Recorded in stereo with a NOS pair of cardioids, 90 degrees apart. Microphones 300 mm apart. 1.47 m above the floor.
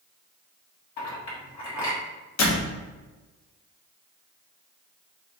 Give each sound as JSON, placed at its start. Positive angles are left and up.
{"t": 1.0, "sound": "a clink", "azimuth_deg": 70, "distance_m": 1.6}
{"t": 2.4, "sound": "a door slam", "azimuth_deg": 65, "distance_m": 1.1}